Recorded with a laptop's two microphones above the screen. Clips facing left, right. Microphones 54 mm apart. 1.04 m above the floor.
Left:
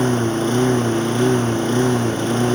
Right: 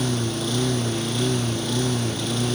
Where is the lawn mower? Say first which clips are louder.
Left 7 dB; 40° left (ahead or behind).